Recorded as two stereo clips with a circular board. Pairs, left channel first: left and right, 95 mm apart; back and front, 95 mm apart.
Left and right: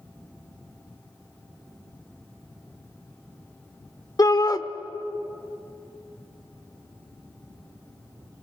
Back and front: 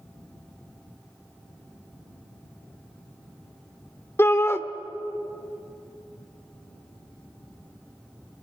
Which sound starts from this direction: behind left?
A shout, at 4.2 s.